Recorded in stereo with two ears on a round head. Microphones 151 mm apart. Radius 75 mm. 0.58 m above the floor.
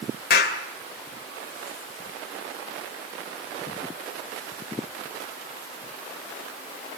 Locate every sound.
0.3 s a clap: 60° left (ahead or behind), 2.5 m